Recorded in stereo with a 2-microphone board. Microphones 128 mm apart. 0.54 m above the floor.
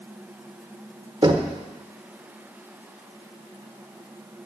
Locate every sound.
1.2 s knocking: 40° right (ahead or behind), 1.0 m